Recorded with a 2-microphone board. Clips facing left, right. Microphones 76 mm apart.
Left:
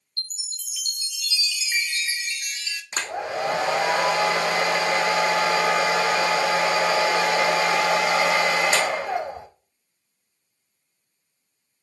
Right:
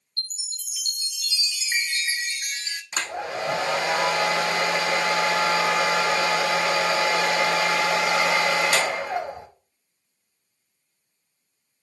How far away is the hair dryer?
About 1.6 m.